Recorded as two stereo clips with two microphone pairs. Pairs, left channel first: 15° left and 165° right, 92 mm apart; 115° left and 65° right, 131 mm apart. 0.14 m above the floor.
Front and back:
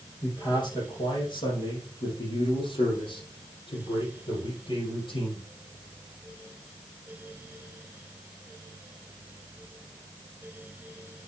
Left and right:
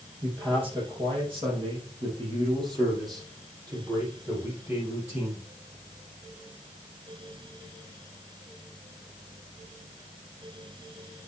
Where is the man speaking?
25° right, 5.5 m; by 5.4 s 5° left, 5.5 m.